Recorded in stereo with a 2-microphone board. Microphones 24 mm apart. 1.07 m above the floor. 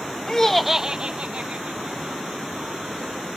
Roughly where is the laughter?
Left.